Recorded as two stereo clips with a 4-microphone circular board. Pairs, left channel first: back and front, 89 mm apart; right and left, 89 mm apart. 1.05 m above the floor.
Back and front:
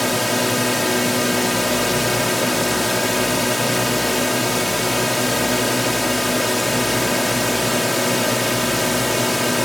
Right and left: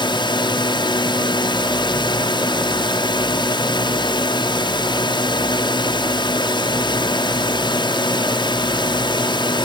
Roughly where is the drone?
Right.